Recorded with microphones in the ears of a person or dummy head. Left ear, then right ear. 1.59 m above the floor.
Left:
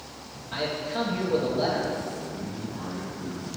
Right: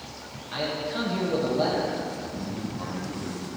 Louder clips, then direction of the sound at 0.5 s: Even; 10° right (ahead or behind).